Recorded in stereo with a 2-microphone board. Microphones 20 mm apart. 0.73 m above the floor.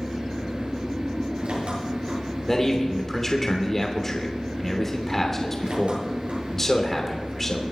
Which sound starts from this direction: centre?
A man speaking, at 2.5 s.